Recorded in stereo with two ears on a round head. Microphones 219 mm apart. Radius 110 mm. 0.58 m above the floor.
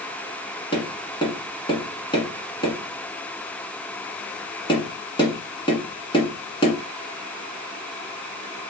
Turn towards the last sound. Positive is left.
turn(degrees=20)  # may be behind; listen again after turning